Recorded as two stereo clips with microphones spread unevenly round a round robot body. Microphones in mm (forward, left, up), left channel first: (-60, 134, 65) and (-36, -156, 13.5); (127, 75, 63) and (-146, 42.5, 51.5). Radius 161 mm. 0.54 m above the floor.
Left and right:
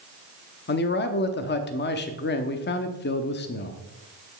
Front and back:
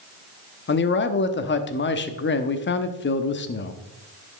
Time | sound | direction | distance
0.7 | a man speaking | 40° left | 0.9 m